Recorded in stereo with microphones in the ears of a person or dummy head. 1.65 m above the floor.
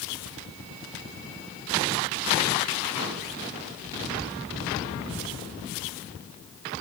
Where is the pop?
25° left (ahead or behind), 9 m.